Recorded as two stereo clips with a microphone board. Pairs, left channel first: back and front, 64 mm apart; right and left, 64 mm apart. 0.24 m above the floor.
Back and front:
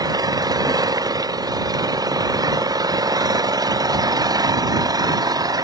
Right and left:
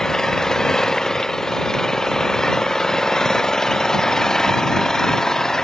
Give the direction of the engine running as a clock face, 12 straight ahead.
12 o'clock.